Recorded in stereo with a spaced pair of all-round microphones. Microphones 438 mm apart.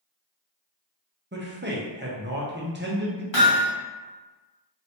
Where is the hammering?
90° left, 1.3 m.